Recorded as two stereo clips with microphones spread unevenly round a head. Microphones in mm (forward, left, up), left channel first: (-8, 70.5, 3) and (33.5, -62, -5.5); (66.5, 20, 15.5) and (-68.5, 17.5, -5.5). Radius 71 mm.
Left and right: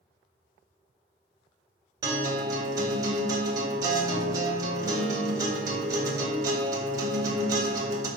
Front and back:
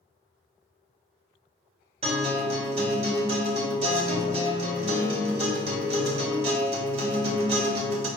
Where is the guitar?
135° right, 2.5 m.